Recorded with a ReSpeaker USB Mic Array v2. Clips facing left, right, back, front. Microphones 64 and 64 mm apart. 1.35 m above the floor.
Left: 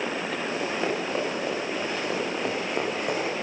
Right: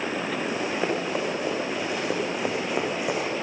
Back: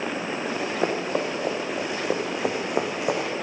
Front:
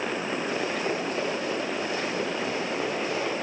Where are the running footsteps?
170° right, 7.5 m; by 3.3 s 175° right, 4.5 m.